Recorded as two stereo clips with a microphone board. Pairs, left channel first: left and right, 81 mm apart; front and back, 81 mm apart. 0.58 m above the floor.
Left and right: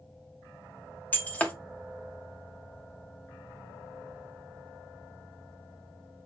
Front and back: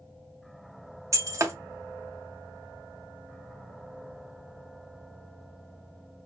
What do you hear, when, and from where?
1.1 s breaking glass: 155° left, 0.5 m